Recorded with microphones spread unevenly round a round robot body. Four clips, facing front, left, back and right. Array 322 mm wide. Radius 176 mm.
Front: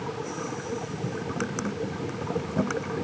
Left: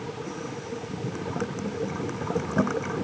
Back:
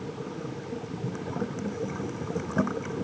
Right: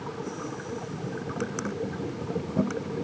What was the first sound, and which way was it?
Only background noise.